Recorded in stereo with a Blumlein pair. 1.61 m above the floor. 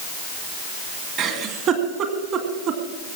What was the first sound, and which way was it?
A giggle, 35° right.